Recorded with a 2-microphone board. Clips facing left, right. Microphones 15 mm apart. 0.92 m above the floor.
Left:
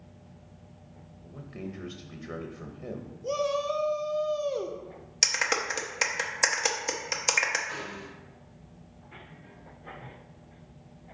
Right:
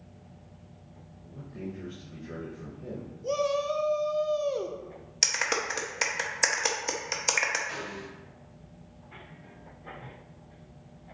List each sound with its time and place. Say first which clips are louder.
1.2 s a man speaking: even; 45° left (ahead or behind), 0.8 m
3.2 s a shout: right 1 dB; 5° left (ahead or behind), 0.5 m
5.2 s a clap: left 1 dB; 5° left (ahead or behind), 0.6 m
7.7 s a snare drum: even; 25° right (ahead or behind), 3 m